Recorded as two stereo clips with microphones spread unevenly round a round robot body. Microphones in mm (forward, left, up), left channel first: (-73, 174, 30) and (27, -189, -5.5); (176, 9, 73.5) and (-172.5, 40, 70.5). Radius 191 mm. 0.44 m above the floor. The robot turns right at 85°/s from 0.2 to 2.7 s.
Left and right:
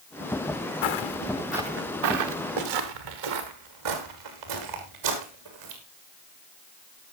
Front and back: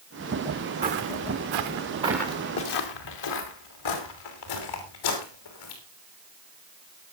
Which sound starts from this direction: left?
Footsteps, at 0.8 s.